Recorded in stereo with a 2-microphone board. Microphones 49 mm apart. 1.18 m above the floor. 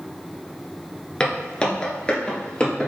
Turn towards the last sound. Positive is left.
turn(degrees=20)  # may be behind; listen again after turning